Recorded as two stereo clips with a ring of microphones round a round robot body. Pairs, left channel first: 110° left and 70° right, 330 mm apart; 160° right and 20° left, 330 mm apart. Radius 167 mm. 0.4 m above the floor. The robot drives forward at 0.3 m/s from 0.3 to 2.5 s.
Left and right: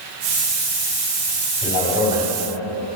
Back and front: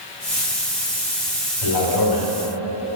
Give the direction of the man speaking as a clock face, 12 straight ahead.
5 o'clock.